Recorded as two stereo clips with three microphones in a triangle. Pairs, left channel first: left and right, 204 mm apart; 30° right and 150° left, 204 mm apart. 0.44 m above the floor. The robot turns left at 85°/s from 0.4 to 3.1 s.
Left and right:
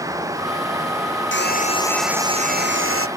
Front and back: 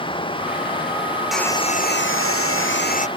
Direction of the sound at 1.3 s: 60° left.